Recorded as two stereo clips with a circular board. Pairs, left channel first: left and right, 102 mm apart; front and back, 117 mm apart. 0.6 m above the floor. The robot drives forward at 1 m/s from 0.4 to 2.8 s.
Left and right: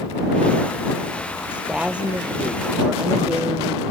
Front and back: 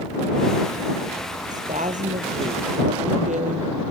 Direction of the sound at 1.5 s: 170° right.